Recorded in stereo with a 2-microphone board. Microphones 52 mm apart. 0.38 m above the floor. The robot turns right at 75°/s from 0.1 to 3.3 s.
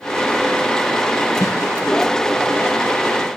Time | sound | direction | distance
1.4 | a snare drum | 70° left (ahead or behind) | 1.1 m